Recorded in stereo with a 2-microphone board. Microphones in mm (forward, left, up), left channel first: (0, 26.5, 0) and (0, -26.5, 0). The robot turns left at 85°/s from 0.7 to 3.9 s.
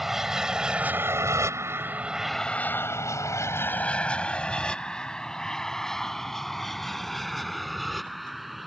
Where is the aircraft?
5° right (ahead or behind); by 8.7 s centre (ahead or behind).